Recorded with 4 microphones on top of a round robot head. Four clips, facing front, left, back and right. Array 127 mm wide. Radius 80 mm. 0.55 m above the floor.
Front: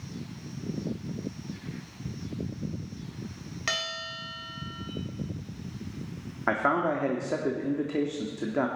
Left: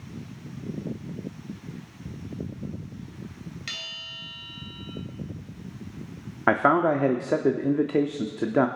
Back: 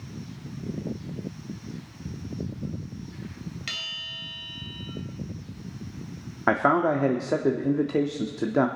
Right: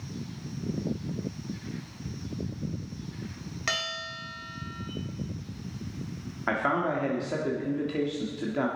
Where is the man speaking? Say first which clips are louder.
Left 7 dB, back 4 dB; 115° left, 1.2 m.